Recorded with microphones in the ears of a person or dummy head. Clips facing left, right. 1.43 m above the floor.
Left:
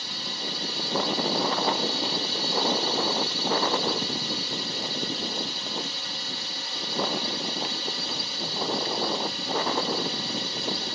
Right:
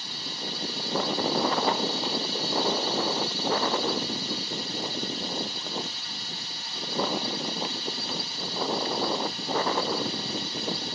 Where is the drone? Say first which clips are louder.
Left 1 dB; 55° left (ahead or behind).